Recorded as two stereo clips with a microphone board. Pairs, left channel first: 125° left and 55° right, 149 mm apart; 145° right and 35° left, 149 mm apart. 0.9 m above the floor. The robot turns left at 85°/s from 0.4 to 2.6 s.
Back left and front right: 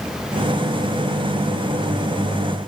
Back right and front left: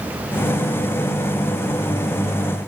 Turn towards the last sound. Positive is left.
No sound to turn to.